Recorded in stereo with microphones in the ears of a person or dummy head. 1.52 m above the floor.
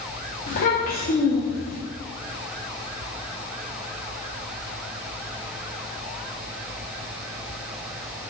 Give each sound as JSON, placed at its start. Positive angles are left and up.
{"t": 0.5, "sound": "a child speaking", "side_deg": 35, "distance_m": 0.7}